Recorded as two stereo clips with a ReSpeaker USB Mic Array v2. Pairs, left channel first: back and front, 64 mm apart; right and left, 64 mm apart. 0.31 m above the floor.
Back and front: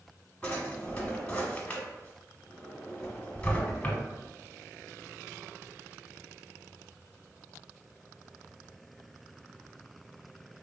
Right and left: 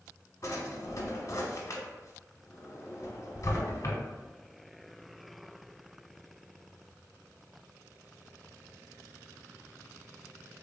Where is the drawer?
115° right, 0.8 m.